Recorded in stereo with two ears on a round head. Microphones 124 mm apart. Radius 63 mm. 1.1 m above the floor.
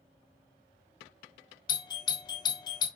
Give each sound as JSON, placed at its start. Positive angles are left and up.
{"t": 1.7, "sound": "a doorbell", "side_deg": 30, "distance_m": 1.2}